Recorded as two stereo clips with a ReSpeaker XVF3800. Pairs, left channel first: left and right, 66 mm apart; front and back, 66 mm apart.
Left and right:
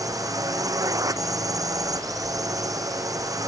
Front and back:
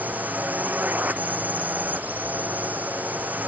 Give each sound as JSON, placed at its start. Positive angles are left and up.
{"t": 0.0, "sound": "a drone", "azimuth_deg": -115}